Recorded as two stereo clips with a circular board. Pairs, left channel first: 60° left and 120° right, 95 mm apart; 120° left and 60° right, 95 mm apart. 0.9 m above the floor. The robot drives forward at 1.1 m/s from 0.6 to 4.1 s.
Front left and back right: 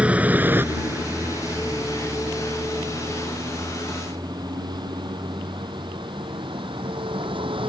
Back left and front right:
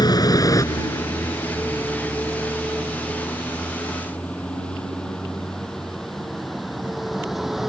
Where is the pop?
No pop in this recording.